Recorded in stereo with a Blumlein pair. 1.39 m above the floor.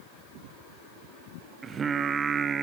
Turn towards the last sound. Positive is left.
turn(degrees=-20)